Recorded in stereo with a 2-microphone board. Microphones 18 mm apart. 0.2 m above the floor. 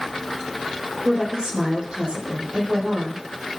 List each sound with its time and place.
1.1 s a woman speaking: 50° right (ahead or behind), 8.5 m